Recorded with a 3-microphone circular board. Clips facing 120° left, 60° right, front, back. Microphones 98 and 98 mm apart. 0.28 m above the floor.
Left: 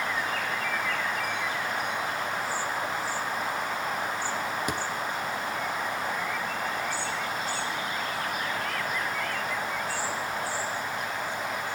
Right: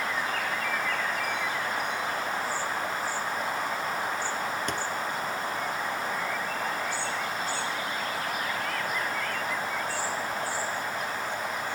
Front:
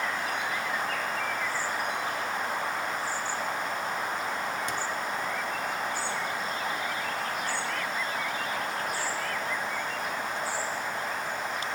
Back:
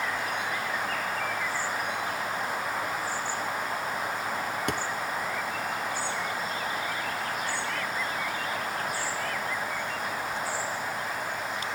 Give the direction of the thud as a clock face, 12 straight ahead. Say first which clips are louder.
Left 1 dB, back 2 dB; 5 o'clock.